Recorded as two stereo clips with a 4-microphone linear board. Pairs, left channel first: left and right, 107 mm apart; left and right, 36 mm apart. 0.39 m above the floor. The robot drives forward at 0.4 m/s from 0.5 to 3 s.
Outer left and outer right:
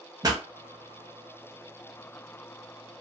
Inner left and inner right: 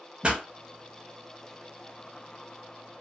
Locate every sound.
0.2 s a pop: 35° right (ahead or behind), 0.6 m